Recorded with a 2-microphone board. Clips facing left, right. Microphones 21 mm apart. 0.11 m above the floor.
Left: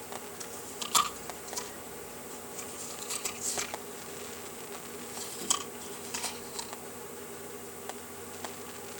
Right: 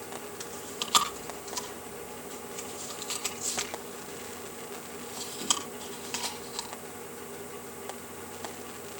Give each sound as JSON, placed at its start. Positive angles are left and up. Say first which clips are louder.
{"t": 0.4, "sound": "chewing", "louder": "right 3 dB", "side_deg": -30, "distance_m": 4.5}